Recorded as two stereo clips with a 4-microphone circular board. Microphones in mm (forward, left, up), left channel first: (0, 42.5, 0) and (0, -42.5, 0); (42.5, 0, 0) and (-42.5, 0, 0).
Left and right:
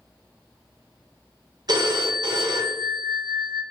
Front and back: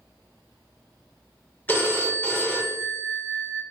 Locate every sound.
1.7 s a phone ringing: 60° right, 0.7 m